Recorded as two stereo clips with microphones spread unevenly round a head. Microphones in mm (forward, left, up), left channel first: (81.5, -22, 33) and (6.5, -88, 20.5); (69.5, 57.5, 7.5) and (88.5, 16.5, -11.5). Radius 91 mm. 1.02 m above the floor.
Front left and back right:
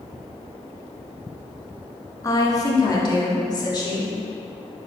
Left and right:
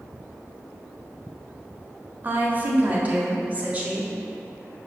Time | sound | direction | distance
2.2 | a woman speaking | 15° right | 1.4 m